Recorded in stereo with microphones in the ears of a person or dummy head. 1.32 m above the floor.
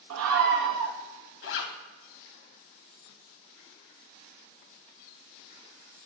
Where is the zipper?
65° left (ahead or behind), 1.1 m.